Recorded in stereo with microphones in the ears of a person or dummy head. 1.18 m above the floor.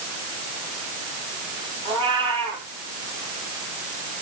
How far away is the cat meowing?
About 7.5 m.